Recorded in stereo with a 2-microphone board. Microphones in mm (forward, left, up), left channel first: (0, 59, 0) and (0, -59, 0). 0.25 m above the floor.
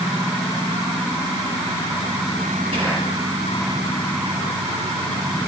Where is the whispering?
50° right (ahead or behind), 5 m.